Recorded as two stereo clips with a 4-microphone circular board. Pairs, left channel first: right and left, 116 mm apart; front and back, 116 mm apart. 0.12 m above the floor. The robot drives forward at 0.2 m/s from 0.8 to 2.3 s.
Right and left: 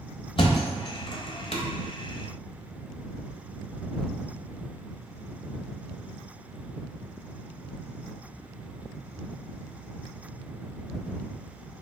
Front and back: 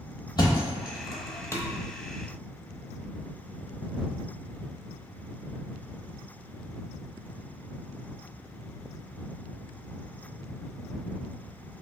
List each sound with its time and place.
0.4 s a thud: 50° right, 0.7 m; by 1.6 s 65° right, 0.6 m